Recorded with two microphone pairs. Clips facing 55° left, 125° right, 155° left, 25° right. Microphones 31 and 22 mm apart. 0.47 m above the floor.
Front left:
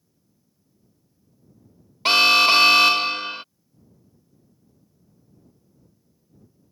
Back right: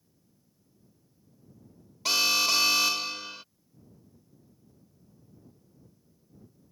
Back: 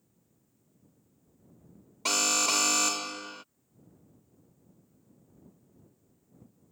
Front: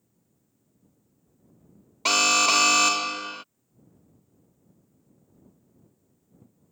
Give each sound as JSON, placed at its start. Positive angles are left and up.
{"t": 2.0, "sound": "an alarm", "azimuth_deg": 30}